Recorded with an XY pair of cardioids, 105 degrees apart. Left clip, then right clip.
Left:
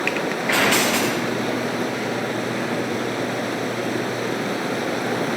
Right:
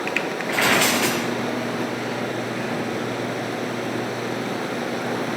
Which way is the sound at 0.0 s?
25° left.